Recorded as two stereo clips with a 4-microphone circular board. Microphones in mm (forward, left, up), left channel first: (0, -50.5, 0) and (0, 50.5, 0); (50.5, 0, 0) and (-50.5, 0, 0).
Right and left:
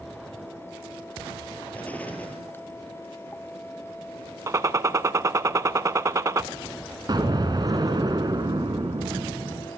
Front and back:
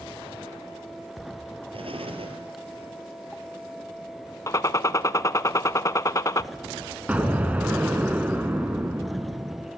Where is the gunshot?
45° left, 0.6 m.